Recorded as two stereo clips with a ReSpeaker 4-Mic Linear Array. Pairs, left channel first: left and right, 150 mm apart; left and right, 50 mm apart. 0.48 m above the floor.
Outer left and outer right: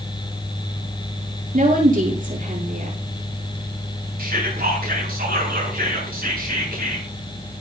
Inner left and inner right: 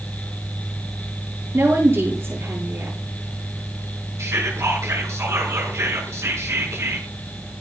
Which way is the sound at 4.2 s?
80° right.